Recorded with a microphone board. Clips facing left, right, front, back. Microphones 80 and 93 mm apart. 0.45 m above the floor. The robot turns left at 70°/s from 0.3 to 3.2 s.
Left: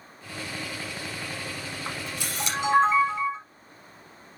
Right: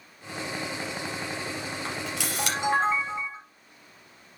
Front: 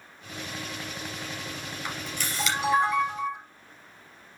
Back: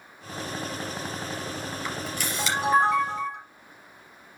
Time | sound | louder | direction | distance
1.9 | a camera shutter | right 2 dB, back 1 dB | 75° right | 3.5 m